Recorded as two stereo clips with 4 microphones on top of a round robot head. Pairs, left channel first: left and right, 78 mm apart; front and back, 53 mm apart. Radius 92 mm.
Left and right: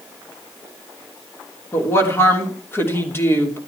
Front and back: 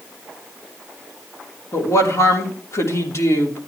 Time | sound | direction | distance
1.7 | a woman speaking | 30° left | 3 m